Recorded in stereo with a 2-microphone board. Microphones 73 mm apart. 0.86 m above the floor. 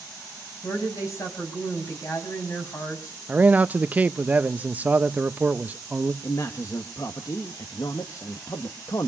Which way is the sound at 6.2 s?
50° left (ahead or behind).